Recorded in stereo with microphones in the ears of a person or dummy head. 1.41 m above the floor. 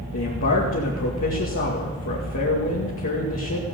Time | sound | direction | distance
0.1 | a man speaking | 65° left (ahead or behind) | 2 m